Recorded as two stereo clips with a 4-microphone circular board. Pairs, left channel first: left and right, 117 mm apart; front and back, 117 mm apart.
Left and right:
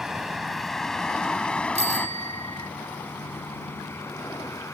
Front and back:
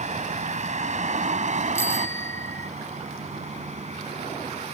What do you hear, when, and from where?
0.0 s a vehicle: 175° right; by 4.7 s 155° left
1.8 s a bicycle bell: 70° right